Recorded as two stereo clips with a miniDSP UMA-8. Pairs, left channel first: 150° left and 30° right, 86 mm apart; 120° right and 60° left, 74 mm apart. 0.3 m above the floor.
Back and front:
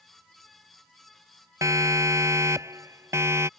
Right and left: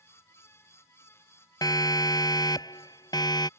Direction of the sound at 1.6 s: 85° right.